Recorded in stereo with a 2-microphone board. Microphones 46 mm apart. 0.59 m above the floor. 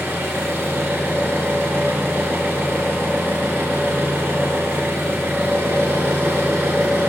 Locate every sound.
0.0 s an engine running: 65° right (ahead or behind), 1.7 m